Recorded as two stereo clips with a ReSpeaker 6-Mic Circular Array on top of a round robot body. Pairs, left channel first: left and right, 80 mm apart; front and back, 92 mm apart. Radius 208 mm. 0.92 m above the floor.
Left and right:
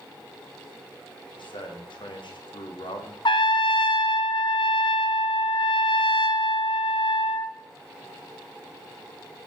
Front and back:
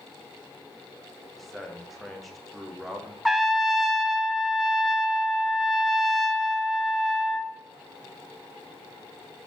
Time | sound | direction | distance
1.4 | a man speaking | 85° left | 1.7 m
3.2 | a trumpet | 90° left | 0.8 m